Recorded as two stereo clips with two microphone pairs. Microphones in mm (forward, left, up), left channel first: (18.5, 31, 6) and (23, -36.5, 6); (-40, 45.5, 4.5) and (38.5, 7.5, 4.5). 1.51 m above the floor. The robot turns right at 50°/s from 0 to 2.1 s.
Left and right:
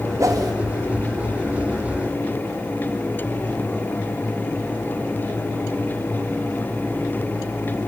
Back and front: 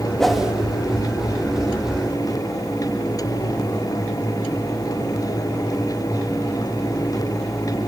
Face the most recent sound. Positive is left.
turn(degrees=-25)